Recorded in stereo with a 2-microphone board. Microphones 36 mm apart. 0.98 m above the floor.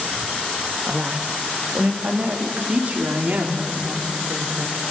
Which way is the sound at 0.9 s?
30° right (ahead or behind).